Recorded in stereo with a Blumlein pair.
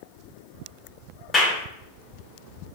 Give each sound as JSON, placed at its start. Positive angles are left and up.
{"t": 1.3, "sound": "a clap", "azimuth_deg": 20, "distance_m": 0.7}